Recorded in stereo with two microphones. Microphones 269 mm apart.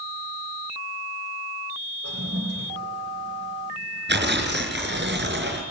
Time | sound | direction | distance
2.0 | a toilet flushing | 65° right (ahead or behind) | 8.5 m
4.1 | tearing paper | 40° right (ahead or behind) | 4.5 m